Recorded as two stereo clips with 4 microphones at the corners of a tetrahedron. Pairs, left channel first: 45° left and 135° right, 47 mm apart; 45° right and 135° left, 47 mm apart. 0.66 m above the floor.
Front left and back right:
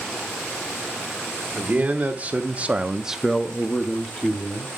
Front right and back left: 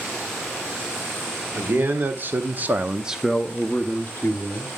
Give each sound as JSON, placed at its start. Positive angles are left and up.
{"t": 1.6, "sound": "a man speaking", "azimuth_deg": 170, "distance_m": 1.7}